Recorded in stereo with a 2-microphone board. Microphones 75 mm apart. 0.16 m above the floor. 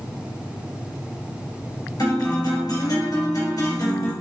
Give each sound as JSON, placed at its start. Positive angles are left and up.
{"t": 2.0, "sound": "a guitar", "side_deg": 60, "distance_m": 2.5}